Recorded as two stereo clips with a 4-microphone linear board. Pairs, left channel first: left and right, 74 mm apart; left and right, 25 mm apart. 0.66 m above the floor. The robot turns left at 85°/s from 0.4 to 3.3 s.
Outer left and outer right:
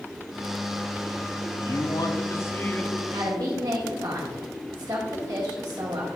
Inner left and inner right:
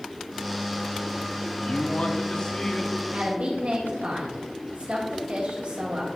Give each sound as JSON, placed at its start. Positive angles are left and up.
{"t": 1.6, "sound": "a man speaking", "azimuth_deg": 120, "distance_m": 0.9}
{"t": 3.1, "sound": "a woman speaking", "side_deg": -60, "distance_m": 1.3}